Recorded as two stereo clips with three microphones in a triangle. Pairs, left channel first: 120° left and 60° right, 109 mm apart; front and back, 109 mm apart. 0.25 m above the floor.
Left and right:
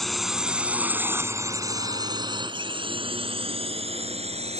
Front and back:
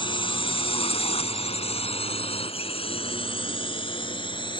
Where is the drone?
35° left; by 4.6 s 45° right.